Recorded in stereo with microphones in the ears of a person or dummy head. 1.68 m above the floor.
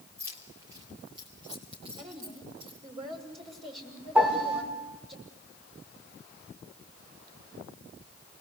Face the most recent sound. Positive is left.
turn(degrees=-10)  # may be behind; listen again after turning